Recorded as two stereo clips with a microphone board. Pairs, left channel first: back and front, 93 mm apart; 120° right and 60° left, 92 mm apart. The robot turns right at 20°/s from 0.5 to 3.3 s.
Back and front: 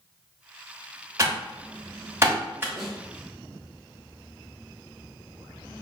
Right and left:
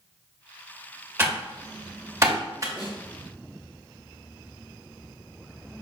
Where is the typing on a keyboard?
15° left, 0.9 m; by 2.7 s 45° left, 0.9 m.